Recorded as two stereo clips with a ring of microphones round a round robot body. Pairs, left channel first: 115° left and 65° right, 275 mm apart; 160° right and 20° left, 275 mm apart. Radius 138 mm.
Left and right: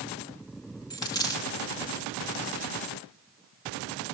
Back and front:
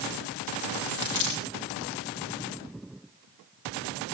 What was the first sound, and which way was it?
A dropped coin, 170° right.